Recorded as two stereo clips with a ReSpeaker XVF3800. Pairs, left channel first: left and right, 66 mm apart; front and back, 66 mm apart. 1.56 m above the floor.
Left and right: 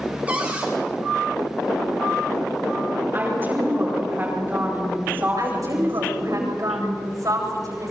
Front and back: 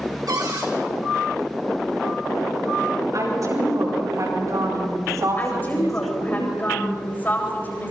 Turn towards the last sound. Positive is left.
turn(degrees=-60)